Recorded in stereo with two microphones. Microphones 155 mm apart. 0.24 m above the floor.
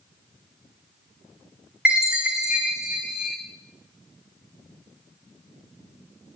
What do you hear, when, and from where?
1.9 s a chime: 5° right (ahead or behind), 3 m